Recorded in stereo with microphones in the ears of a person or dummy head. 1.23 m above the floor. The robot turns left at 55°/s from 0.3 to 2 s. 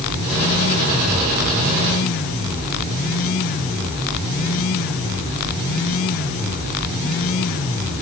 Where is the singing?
I don't hear singing.